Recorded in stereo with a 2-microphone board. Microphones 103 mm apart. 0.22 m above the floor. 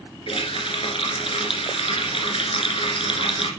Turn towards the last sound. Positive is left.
turn(degrees=60)  # may be behind; listen again after turning